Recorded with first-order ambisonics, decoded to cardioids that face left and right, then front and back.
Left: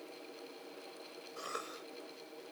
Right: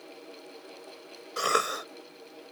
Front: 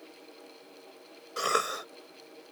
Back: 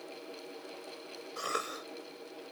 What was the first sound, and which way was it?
A cough, 65° right.